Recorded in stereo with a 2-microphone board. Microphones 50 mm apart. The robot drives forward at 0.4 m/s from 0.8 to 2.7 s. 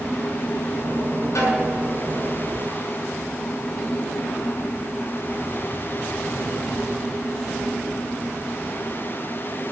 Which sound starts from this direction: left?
A snare drum, at 1.4 s.